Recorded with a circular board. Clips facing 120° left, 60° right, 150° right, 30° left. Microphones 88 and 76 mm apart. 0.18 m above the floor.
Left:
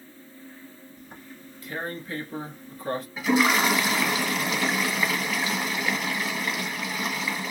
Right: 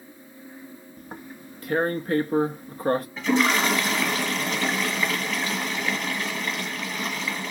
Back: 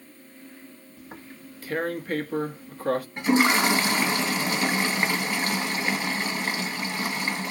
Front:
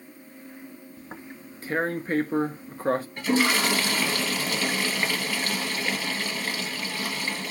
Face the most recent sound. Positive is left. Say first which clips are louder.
# left 4 dB, back 6 dB
turn(degrees=-165)